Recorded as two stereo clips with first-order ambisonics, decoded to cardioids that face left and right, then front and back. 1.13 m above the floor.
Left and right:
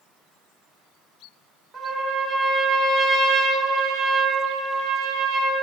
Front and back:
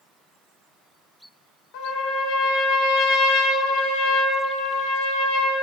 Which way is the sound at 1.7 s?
10° right.